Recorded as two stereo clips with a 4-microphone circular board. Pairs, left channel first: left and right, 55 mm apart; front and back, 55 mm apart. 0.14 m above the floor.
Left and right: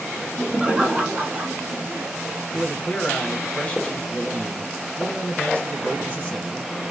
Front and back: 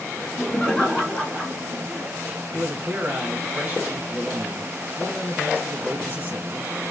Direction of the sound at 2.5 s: 140° left.